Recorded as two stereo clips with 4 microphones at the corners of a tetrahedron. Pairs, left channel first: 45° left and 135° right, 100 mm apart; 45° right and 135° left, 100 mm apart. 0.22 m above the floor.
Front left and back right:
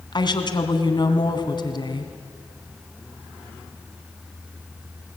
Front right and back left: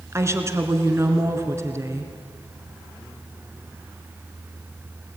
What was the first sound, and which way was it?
A woman speaking, 75° left.